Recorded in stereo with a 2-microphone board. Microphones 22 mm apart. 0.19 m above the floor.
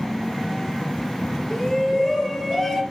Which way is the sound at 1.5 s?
30° left (ahead or behind).